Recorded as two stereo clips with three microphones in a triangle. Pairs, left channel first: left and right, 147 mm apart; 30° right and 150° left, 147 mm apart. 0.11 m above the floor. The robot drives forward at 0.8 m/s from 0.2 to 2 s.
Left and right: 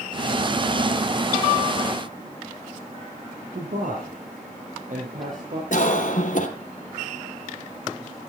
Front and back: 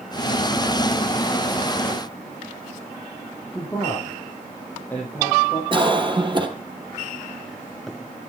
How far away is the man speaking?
About 4 m.